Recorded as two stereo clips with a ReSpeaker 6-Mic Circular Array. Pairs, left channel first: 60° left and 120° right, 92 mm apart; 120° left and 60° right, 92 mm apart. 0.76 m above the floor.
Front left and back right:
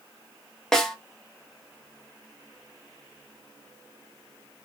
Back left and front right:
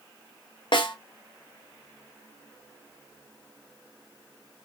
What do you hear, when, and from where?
0.7 s a snare drum: 145° left, 0.5 m